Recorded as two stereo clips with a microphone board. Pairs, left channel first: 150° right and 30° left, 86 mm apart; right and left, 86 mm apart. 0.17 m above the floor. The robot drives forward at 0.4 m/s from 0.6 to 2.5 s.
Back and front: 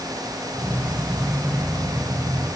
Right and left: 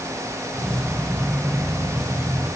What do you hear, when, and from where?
Only background noise.